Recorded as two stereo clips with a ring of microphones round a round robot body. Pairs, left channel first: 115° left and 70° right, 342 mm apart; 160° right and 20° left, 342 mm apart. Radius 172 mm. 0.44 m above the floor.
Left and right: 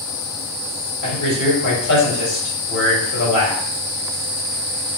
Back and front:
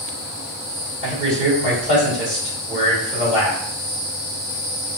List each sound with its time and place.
1.0 s a man speaking: 85° left, 1.9 m